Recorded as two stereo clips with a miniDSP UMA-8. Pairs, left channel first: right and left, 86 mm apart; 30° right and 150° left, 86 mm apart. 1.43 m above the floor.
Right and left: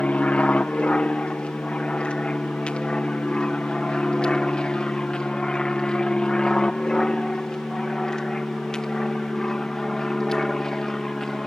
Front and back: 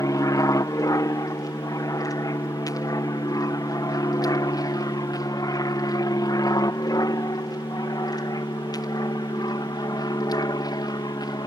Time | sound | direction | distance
0.0 | an aircraft | 20° right | ?